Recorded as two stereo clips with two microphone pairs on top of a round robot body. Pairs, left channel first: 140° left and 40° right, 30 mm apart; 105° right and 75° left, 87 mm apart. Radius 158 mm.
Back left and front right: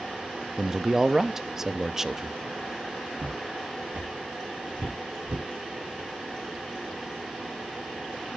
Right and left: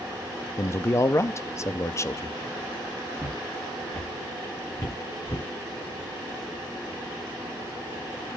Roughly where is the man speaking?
Right.